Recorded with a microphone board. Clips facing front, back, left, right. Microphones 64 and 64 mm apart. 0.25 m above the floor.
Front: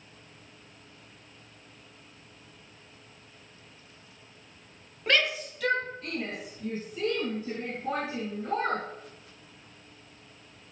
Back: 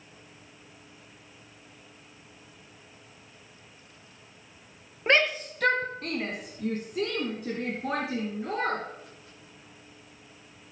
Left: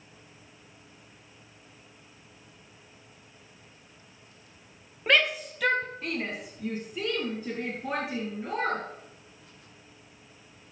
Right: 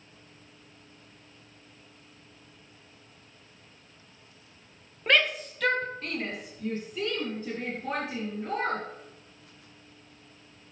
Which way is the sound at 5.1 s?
175° left.